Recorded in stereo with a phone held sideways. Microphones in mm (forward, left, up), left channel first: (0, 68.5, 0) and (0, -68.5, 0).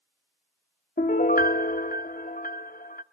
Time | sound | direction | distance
1.0 | a piano | 75° left (ahead or behind) | 0.7 m